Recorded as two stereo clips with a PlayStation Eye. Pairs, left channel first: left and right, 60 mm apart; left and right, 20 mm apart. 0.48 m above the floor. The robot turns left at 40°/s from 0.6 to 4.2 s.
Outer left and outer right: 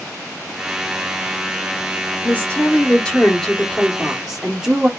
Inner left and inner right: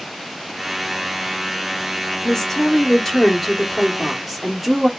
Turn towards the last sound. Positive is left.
turn(degrees=-15)